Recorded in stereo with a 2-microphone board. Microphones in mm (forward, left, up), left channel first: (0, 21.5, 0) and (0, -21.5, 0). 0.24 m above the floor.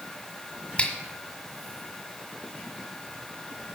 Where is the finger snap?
25° left (ahead or behind), 1.5 m.